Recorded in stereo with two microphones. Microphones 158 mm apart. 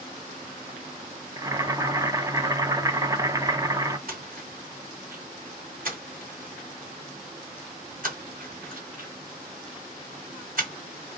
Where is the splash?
65° right (ahead or behind), 1.9 m.